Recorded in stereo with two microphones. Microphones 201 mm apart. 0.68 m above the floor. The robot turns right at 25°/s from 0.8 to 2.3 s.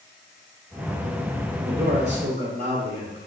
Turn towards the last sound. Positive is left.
turn(degrees=-60)  # may be behind; listen again after turning